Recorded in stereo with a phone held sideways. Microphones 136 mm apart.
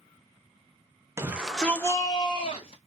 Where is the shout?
20° right (ahead or behind), 0.8 m; by 2.8 s 50° left (ahead or behind), 1.4 m.